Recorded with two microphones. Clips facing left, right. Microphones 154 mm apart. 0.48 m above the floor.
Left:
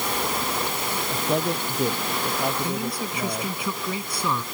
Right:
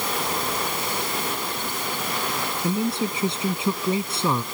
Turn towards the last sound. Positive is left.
turn(degrees=-25)  # may be behind; listen again after turning